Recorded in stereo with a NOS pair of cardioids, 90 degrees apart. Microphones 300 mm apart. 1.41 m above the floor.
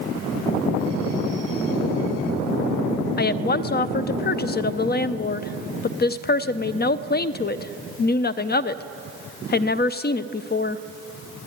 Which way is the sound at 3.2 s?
30° left.